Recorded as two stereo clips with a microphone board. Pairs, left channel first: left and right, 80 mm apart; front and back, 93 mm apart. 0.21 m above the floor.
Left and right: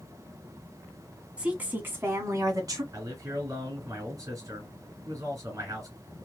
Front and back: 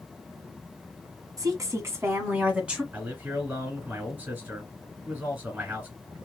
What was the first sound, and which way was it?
A woman speaking, 160° right.